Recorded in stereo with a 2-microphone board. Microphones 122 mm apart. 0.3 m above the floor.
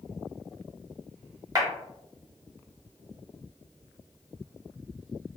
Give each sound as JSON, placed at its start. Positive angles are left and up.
{"t": 1.6, "sound": "a clap", "side_deg": -30, "distance_m": 0.9}